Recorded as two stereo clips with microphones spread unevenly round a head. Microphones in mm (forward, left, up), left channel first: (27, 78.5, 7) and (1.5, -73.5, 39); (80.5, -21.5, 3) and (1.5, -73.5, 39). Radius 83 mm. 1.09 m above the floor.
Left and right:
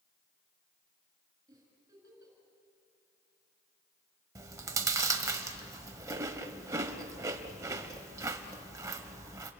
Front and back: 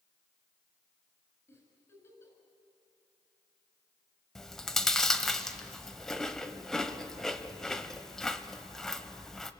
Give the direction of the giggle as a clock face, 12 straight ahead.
1 o'clock.